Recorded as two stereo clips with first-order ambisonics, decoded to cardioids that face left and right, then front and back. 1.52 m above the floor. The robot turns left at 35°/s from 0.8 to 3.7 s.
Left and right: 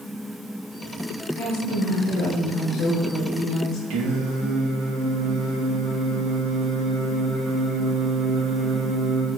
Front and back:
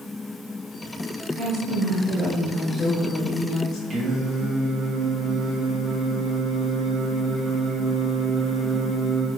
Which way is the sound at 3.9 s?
110° right.